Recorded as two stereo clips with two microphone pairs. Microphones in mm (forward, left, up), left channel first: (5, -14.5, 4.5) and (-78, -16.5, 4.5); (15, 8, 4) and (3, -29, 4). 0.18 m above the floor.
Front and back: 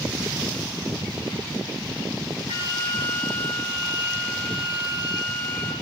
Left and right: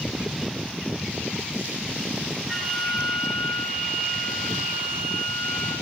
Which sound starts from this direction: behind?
A flute, at 2.5 s.